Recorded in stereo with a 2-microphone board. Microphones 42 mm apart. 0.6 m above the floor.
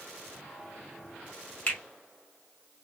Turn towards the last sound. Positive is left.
turn(degrees=35)  # may be behind; listen again after turning